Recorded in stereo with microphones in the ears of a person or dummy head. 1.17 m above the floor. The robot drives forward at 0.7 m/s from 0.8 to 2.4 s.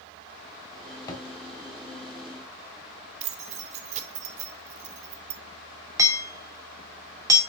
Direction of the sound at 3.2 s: 45° right (ahead or behind).